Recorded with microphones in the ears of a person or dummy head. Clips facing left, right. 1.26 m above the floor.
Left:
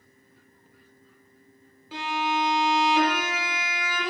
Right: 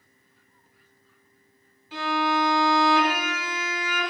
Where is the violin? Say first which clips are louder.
Right 3 dB; 65° left (ahead or behind), 1.2 m.